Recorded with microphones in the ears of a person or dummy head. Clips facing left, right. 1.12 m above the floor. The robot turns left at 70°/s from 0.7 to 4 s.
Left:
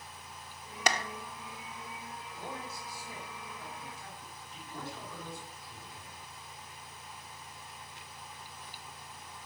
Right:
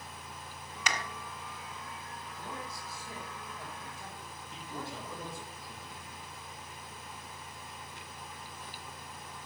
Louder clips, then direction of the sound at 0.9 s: Left 5 dB; 40° left (ahead or behind).